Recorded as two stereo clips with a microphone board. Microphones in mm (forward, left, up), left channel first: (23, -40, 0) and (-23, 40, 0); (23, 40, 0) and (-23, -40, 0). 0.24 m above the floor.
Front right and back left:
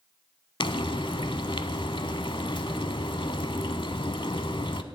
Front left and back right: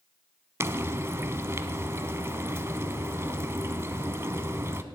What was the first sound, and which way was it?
Frying, 60° right.